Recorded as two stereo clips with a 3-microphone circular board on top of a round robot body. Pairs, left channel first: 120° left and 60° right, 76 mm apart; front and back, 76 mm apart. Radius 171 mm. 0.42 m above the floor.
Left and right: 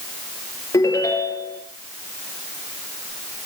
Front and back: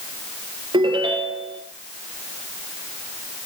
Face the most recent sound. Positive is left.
turn(degrees=165)